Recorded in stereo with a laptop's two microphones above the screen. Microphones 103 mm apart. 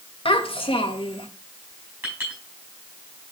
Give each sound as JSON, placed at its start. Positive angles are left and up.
{"t": 0.2, "sound": "a child speaking", "side_deg": 70, "distance_m": 1.1}
{"t": 2.0, "sound": "a clink", "side_deg": -25, "distance_m": 5.0}